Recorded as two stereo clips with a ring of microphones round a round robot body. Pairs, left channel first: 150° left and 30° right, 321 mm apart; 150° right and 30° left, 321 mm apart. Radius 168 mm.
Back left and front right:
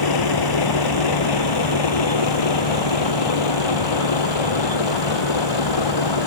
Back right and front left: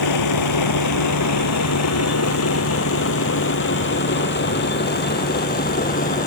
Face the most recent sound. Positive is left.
turn(degrees=140)